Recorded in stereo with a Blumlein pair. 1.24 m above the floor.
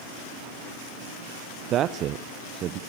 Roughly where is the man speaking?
Ahead right.